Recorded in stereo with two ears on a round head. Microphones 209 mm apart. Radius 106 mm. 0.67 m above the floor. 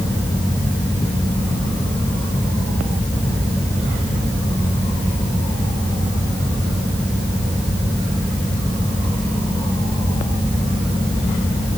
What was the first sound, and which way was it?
Only background noise.